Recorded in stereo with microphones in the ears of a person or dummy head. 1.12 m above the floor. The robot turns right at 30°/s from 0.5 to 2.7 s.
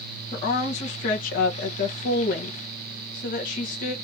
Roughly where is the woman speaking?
Ahead left.